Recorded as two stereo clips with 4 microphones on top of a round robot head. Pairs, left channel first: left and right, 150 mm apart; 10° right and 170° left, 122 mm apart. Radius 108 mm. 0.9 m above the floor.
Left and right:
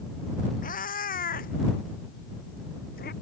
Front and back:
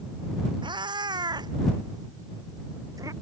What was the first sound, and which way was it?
A cat meowing, 120° left.